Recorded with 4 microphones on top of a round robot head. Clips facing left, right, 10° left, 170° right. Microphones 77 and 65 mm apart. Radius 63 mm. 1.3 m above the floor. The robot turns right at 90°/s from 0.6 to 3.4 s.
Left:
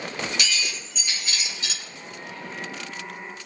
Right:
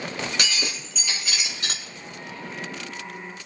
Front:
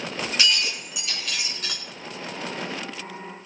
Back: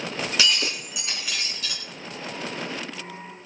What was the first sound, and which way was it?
Breaking glass, 145° right.